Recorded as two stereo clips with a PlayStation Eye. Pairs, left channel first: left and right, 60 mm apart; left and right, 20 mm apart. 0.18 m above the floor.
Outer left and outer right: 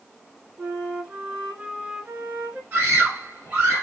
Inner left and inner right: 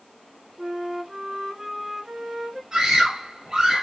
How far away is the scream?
About 2 m.